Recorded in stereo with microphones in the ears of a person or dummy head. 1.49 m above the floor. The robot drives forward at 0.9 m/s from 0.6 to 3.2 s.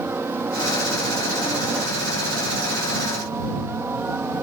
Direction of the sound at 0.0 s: 5° right (ahead or behind).